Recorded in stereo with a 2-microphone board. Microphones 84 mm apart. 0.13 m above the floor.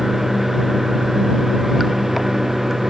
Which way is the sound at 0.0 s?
5° right (ahead or behind).